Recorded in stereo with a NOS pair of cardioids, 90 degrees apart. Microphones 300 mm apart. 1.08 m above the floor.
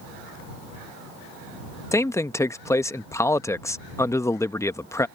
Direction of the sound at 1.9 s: 10° left.